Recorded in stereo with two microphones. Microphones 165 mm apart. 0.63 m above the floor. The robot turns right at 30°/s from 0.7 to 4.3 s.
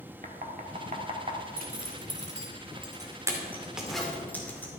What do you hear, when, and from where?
0.2 s knocking: 45° right (ahead or behind), 1.4 m; by 1.4 s 30° right (ahead or behind), 1.4 m
1.6 s a zipper: 55° right (ahead or behind), 2 m; by 4.7 s 10° left (ahead or behind), 2 m